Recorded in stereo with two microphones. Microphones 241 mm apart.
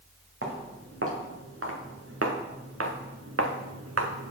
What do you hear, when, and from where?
0.4 s footsteps: 60° right (ahead or behind), 2.5 m; by 4.3 s 75° right (ahead or behind), 0.9 m